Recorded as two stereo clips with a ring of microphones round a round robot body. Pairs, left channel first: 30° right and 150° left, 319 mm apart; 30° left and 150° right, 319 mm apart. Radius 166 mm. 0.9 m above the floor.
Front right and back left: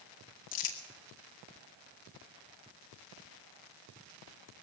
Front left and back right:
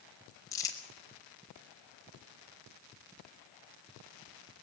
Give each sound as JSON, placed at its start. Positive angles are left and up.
{"t": 0.5, "sound": "crumpling", "azimuth_deg": -50, "distance_m": 4.0}